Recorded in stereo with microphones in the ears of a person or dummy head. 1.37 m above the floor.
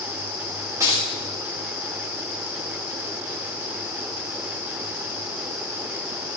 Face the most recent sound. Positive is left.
turn(degrees=-10)  # may be behind; listen again after turning